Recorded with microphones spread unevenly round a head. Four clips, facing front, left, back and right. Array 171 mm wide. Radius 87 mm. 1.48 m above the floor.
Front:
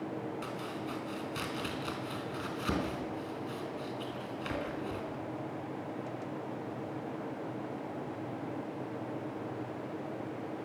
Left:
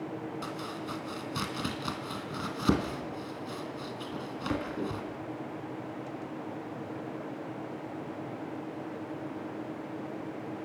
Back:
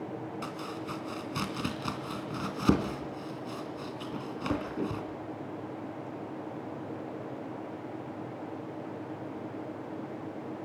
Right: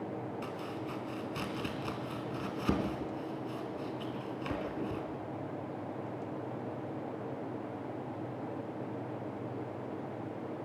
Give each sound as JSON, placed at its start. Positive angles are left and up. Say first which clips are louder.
{"t": 0.4, "sound": "chopping", "louder": "left 2 dB, back 1 dB", "azimuth_deg": 150, "distance_m": 3.0}